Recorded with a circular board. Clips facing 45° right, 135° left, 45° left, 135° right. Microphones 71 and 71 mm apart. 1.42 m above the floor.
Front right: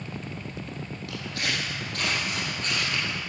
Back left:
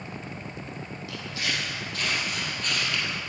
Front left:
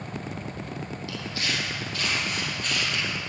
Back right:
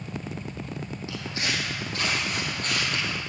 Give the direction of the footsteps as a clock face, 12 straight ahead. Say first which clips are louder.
Front right 1 dB, back right 1 dB; 2 o'clock.